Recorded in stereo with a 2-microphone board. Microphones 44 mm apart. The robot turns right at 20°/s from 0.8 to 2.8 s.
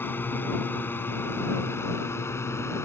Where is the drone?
50° left (ahead or behind); by 2.9 s 75° left (ahead or behind).